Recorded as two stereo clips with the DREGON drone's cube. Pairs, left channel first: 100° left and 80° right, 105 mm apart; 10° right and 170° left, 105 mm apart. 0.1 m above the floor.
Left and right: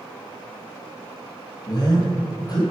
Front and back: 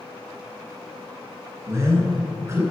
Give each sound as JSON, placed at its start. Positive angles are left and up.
{"t": 1.7, "sound": "a man speaking", "azimuth_deg": 125, "distance_m": 2.0}